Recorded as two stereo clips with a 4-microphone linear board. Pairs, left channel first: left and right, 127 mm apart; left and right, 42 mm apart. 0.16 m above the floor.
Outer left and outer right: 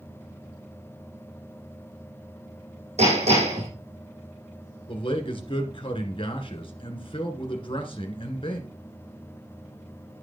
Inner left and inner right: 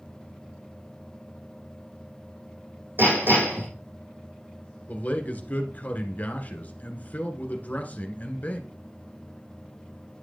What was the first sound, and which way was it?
Hammering, 70° right (ahead or behind).